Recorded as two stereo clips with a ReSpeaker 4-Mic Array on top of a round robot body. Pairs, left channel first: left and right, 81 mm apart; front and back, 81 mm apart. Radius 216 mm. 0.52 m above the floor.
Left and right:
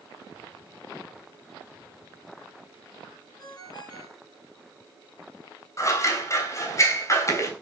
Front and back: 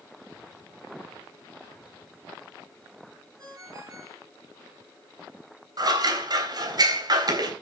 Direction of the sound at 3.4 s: 130° left.